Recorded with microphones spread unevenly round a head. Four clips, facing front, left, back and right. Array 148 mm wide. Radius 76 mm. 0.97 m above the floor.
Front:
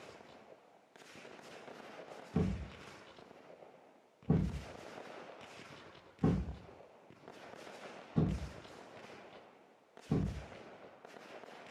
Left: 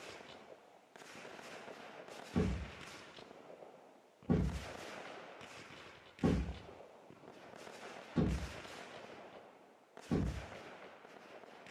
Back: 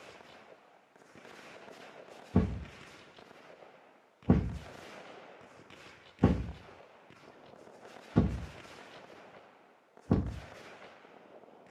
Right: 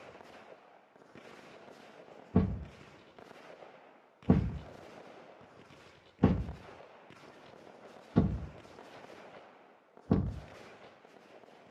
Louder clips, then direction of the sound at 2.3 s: Right 6 dB, back 5 dB; 150° right.